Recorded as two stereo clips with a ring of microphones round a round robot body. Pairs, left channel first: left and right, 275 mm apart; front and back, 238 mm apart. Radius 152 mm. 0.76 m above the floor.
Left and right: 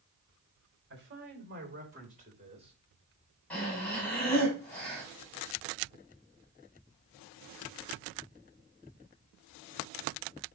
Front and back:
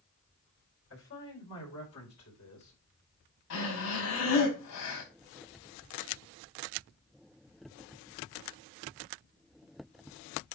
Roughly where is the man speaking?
Ahead right.